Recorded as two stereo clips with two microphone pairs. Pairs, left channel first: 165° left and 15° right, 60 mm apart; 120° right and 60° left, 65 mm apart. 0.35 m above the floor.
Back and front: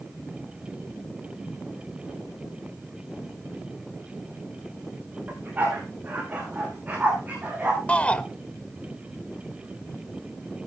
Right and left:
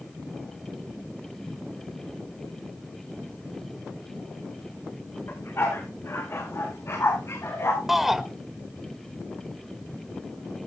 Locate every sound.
5.3 s a dog barking: 75° right, 6.5 m; by 7.8 s 80° right, 8 m
7.9 s a shout: 145° left, 1.2 m